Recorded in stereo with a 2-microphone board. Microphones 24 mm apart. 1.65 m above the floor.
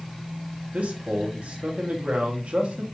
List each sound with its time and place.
0.7 s a man speaking: 65° right (ahead or behind), 1.1 m